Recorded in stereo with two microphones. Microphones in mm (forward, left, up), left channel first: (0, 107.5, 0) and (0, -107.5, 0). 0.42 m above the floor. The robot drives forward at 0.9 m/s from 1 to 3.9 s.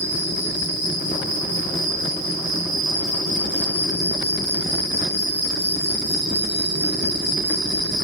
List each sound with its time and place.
0.0 s an insect: 50° right (ahead or behind), 3 m